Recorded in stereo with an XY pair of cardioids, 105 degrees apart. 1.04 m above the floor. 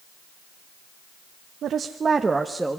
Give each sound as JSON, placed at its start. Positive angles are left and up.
{"t": 1.6, "sound": "a woman speaking", "azimuth_deg": -60, "distance_m": 0.9}